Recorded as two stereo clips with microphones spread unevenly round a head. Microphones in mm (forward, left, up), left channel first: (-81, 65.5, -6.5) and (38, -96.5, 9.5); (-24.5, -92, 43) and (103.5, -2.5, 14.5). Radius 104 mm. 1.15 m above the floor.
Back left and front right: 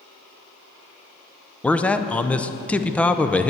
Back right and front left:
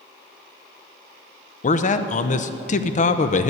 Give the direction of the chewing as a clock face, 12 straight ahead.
I don't hear chewing.